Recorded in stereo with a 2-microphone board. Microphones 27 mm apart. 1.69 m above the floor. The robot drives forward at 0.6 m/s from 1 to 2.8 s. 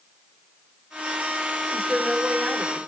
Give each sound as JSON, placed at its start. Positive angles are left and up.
{"t": 1.7, "sound": "a woman speaking", "side_deg": -20, "distance_m": 6.0}